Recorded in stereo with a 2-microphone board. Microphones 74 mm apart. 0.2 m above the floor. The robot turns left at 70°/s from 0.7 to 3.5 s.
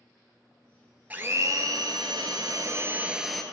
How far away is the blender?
About 0.7 m.